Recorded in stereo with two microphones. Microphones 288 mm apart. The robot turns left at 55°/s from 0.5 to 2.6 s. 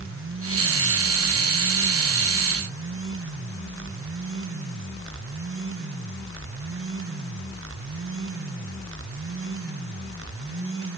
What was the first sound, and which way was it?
Only background noise.